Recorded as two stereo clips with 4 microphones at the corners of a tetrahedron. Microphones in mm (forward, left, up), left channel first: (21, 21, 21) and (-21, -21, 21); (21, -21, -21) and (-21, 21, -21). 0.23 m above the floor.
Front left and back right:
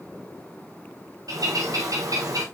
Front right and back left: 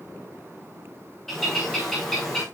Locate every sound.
1.3 s a bird: 130° right, 7 m